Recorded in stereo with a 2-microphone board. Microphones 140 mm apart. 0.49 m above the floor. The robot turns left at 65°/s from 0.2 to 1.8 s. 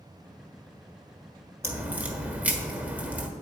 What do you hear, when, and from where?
1.6 s a crack: 20° right (ahead or behind), 1.3 m; by 3.3 s 10° right (ahead or behind), 1.3 m